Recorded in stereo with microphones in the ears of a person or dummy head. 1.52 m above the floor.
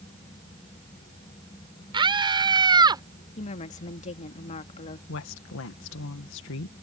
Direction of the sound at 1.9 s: 25° right (ahead or behind).